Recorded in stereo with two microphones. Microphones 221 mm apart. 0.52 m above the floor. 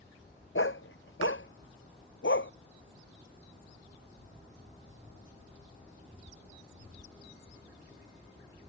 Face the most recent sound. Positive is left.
turn(degrees=70)  # may be behind; listen again after turning